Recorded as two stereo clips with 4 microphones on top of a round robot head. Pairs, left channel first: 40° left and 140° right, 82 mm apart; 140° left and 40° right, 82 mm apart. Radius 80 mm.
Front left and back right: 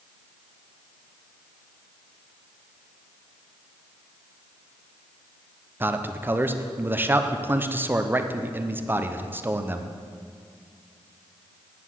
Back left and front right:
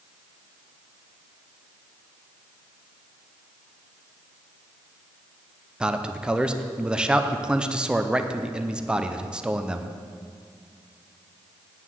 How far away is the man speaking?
About 0.7 m.